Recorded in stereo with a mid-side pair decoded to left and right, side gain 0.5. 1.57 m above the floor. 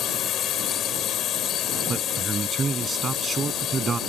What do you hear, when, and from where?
0.0 s a drone: 60° left
1.9 s a man speaking: 35° right